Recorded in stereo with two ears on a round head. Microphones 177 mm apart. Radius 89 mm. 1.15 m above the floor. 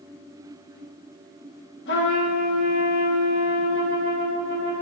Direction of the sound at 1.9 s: 60° left (ahead or behind).